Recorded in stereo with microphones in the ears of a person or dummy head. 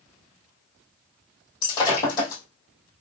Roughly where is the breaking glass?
Left.